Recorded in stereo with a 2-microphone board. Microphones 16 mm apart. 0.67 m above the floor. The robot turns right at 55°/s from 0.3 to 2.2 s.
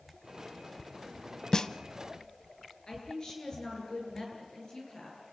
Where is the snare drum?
35° left (ahead or behind), 0.7 m; by 1.7 s 40° left (ahead or behind), 0.7 m.